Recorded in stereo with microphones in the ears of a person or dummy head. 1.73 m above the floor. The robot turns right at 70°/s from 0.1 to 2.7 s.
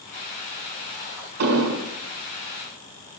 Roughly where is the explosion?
Behind right.